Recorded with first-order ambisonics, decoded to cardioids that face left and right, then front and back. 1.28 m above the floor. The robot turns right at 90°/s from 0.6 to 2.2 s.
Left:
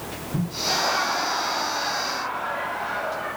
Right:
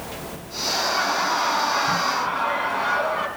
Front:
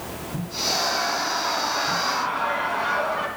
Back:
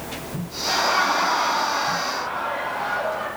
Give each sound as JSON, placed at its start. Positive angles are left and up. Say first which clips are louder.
{"t": 0.7, "sound": "laughter", "louder": "right 1 dB, back 4 dB", "azimuth_deg": 155, "distance_m": 2.5}